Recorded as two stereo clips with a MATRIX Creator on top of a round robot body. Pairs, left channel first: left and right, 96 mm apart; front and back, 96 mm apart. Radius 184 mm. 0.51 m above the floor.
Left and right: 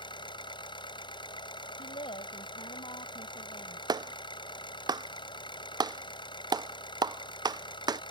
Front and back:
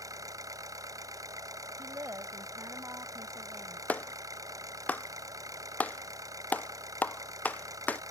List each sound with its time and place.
0.0 s an engine running: 125° left
1.8 s a woman speaking: 115° left
3.9 s a clap: 70° right